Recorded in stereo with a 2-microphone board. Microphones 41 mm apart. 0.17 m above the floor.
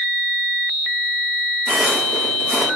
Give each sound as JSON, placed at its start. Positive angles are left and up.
{"t": 1.7, "sound": "footsteps", "side_deg": -30, "distance_m": 8.5}